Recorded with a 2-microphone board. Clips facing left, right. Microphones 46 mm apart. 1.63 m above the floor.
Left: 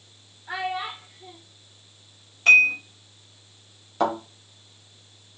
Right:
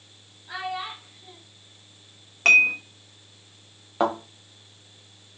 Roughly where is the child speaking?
Left.